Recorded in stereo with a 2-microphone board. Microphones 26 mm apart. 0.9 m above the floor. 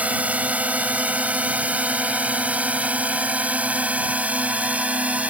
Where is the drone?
75° right (ahead or behind); by 5.3 s 70° right (ahead or behind).